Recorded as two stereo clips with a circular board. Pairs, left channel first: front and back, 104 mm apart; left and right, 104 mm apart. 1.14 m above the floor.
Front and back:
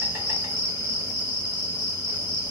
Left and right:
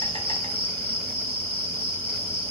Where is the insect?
110° left, 2.0 m.